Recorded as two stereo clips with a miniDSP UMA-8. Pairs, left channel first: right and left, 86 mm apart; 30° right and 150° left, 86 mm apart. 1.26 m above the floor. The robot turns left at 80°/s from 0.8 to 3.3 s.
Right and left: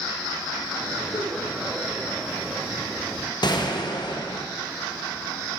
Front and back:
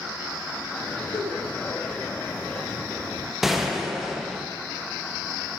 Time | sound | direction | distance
1.1 | a giggle | 65° right | 2.5 m
3.4 | a gunshot | 125° right | 0.8 m